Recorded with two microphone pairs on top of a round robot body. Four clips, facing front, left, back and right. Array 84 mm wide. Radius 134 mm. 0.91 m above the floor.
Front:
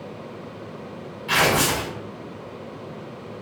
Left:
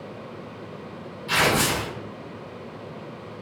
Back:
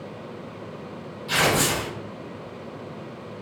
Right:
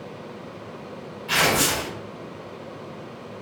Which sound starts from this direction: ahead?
Tearing paper, at 1.3 s.